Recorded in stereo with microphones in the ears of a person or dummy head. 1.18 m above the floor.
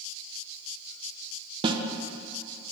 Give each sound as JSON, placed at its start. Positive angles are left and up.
{"t": 1.6, "sound": "a snare drum", "side_deg": -25, "distance_m": 0.6}